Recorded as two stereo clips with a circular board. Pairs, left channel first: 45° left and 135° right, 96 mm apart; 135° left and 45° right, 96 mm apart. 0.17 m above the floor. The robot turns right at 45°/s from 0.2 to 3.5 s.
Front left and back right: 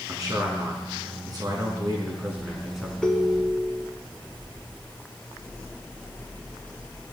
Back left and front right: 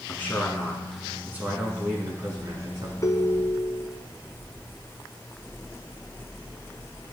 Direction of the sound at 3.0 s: 125° left.